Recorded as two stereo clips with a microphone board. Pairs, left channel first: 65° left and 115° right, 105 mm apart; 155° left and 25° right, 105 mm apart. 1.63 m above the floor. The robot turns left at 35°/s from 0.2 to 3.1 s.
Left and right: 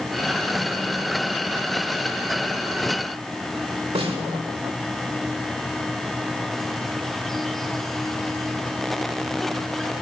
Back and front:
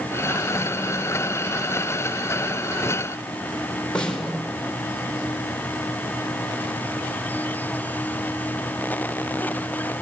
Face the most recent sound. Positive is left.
turn(degrees=-120)